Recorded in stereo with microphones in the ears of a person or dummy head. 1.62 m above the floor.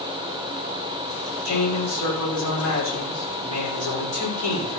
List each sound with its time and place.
1.4 s a man speaking: 70° left (ahead or behind), 6 m